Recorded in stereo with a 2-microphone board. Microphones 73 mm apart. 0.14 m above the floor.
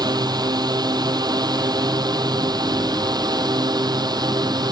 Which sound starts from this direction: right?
A drone, at 0.0 s.